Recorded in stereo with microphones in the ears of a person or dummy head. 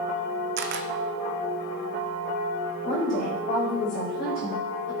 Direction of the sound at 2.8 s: 30° left (ahead or behind).